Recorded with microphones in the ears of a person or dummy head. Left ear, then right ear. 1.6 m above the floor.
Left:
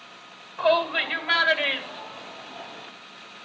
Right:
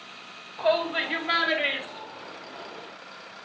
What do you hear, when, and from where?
0.6 s a shout: 20° left (ahead or behind), 2 m; by 2.9 s 10° left (ahead or behind), 4.5 m